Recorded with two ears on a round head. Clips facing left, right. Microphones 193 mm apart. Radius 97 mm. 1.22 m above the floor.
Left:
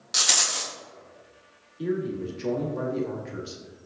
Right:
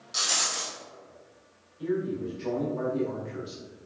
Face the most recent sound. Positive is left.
turn(degrees=65)  # may be behind; listen again after turning